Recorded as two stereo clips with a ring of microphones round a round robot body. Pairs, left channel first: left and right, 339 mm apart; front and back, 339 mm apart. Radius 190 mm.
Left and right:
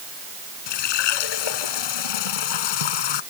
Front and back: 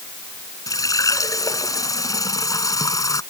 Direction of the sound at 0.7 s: 80° left.